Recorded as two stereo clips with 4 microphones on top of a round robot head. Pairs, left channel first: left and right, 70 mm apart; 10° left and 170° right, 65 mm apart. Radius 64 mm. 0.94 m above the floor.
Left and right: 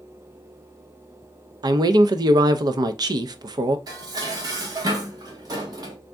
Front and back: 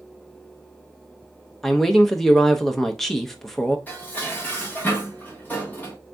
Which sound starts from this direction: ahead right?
Dishes clattering, at 3.9 s.